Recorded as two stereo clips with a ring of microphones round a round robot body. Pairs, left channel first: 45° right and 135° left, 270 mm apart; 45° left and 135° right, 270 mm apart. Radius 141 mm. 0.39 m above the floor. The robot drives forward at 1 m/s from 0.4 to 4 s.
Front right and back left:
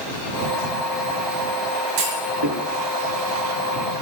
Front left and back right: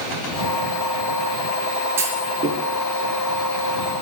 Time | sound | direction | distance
2.0 | a clunk | 145° left | 4.5 m